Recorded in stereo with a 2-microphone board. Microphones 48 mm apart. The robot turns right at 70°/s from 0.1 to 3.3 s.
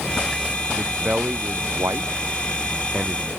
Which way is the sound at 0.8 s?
Centre (ahead or behind).